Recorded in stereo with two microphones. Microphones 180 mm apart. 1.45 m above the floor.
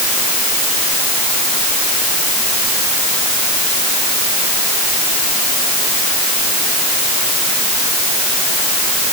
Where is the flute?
I don't hear a flute.